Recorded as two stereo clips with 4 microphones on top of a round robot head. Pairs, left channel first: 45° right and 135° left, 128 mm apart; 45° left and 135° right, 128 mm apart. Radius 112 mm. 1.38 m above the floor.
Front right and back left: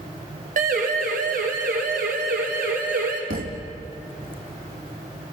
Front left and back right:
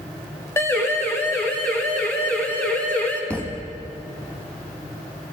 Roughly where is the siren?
Behind left.